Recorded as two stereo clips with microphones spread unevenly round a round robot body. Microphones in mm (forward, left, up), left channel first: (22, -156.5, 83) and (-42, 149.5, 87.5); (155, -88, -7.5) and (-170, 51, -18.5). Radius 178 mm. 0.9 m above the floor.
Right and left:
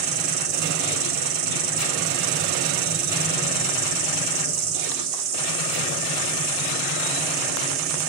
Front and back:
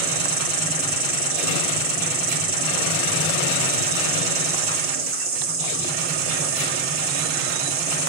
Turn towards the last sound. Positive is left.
turn(degrees=100)